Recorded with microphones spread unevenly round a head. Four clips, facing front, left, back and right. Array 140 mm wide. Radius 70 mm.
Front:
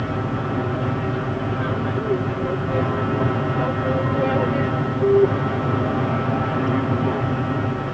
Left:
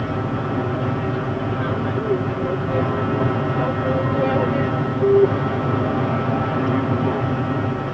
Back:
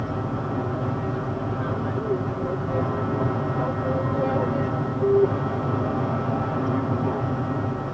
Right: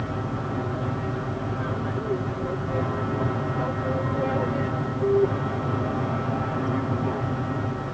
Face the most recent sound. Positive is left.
turn(degrees=70)